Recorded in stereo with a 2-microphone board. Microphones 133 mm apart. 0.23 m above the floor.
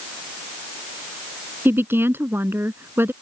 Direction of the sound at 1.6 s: 15° right (ahead or behind).